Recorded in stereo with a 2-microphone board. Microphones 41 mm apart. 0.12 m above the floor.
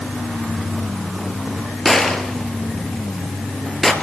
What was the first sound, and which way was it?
A gunshot, 10° left (ahead or behind).